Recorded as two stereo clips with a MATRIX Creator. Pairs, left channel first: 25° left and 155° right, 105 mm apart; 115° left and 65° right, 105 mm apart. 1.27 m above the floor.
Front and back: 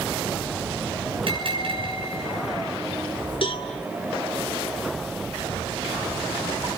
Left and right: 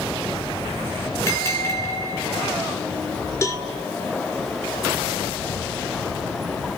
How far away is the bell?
About 7 m.